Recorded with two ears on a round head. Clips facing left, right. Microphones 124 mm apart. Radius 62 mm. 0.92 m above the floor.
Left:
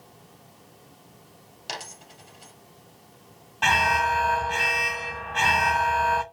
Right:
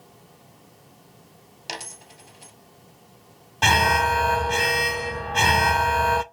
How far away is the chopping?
No chopping in this recording.